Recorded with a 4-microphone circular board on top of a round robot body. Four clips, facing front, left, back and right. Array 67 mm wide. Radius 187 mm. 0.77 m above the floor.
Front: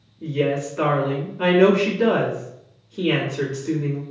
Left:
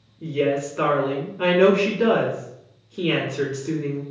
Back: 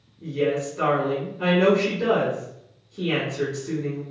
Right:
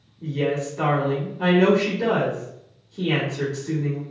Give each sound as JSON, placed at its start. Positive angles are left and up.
{"t": 0.2, "sound": "a woman speaking", "azimuth_deg": 45, "distance_m": 1.3}